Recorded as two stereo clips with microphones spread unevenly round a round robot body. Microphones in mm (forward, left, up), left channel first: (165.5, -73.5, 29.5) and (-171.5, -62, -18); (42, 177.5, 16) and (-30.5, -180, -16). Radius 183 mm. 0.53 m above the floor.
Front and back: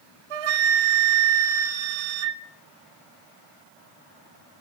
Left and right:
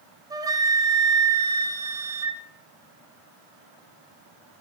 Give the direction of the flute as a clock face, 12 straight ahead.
6 o'clock.